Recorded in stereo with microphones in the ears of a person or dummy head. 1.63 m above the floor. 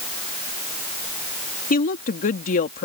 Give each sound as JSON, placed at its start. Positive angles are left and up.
{"t": 1.7, "sound": "a woman speaking", "side_deg": 45}